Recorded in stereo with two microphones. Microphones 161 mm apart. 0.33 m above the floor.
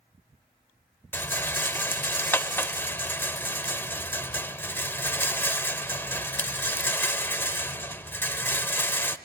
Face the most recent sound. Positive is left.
turn(degrees=15)  # may be behind; listen again after turning